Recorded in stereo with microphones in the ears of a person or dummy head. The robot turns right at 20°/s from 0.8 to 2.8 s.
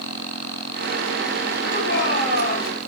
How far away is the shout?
About 9 m.